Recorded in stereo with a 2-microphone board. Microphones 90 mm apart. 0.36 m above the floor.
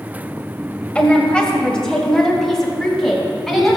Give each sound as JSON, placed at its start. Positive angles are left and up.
{"t": 0.9, "sound": "a woman speaking", "side_deg": 15, "distance_m": 1.7}